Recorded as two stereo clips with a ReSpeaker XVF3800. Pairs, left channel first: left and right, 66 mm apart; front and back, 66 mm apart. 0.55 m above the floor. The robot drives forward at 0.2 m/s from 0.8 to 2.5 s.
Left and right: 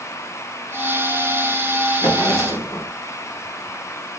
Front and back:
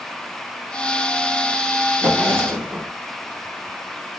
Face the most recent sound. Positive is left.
turn(degrees=125)